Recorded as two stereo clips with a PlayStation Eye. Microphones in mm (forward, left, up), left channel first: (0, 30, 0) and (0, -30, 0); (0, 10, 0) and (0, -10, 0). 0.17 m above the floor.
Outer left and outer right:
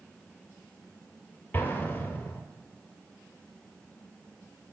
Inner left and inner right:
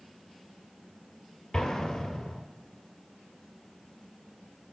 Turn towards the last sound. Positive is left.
turn(degrees=35)  # may be behind; listen again after turning